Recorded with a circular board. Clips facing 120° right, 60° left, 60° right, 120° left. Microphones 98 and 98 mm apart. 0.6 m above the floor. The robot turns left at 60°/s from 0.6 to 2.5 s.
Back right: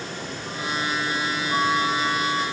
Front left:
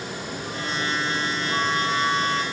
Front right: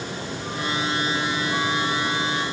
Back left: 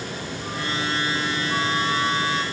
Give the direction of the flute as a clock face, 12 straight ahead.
6 o'clock.